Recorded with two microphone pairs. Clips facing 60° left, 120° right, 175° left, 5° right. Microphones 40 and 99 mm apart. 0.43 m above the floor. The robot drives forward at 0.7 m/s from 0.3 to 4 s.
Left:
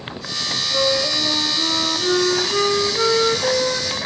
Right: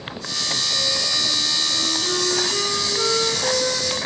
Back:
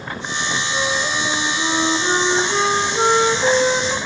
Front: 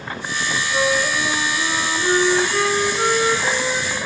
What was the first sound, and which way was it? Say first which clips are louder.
A flute: left 9 dB, front 4 dB; 75° left.